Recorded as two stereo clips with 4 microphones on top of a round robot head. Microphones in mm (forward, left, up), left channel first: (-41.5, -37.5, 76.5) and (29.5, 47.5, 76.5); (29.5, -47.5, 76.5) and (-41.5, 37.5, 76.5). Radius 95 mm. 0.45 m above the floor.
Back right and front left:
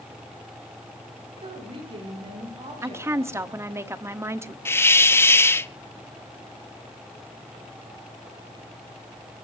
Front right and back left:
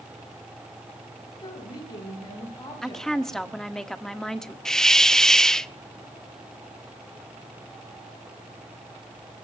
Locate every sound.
1.4 s a woman speaking: 5° left, 7 m; by 3.7 s 10° left, 8.5 m
2.8 s a woman speaking: 30° left, 1.2 m
4.7 s a hiss: 130° right, 0.8 m